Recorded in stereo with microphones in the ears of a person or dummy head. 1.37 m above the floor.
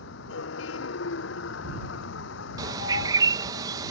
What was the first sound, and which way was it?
A vehicle, 75° left (ahead or behind).